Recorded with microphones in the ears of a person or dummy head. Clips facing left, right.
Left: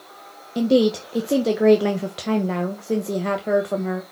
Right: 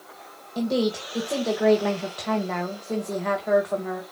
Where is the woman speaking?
35° left (ahead or behind), 1.0 m.